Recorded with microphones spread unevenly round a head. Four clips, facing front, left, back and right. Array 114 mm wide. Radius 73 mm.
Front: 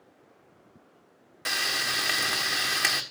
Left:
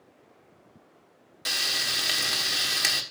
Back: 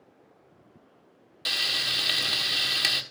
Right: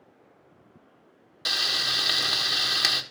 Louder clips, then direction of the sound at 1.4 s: Right 2 dB, front 4 dB; 35° right.